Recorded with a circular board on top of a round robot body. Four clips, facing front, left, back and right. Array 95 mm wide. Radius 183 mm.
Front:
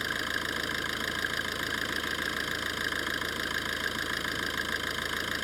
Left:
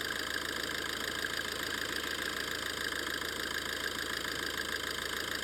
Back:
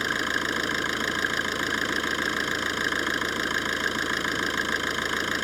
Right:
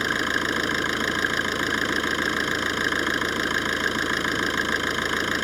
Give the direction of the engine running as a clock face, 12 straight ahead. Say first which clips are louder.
Right 13 dB, back 6 dB; 4 o'clock.